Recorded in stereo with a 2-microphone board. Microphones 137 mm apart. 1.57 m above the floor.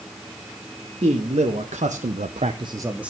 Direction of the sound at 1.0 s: 45° right (ahead or behind).